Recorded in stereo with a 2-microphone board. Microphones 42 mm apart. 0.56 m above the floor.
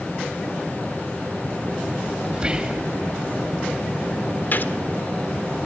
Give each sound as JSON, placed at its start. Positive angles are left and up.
{"t": 2.3, "sound": "whispering", "side_deg": -20, "distance_m": 2.5}
{"t": 4.5, "sound": "a gunshot", "side_deg": 50, "distance_m": 1.5}